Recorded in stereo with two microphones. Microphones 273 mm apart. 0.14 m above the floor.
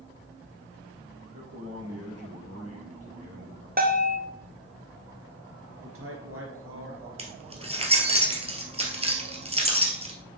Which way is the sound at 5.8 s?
55° right (ahead or behind).